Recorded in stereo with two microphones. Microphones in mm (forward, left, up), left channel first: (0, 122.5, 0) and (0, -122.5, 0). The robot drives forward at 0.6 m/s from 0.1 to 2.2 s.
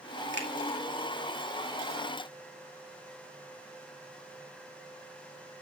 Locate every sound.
0.3 s a finger snap: 50° right (ahead or behind), 2 m; by 0.5 s 45° right (ahead or behind), 2 m